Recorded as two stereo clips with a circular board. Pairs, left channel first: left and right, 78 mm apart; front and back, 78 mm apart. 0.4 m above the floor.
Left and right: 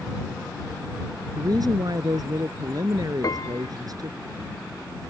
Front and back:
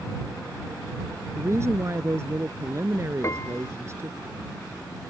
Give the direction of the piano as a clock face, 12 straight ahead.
10 o'clock.